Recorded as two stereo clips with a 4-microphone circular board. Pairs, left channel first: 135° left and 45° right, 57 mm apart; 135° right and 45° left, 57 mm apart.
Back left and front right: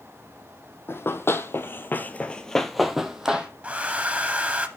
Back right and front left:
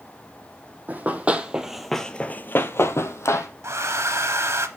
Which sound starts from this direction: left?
Running footsteps, at 0.9 s.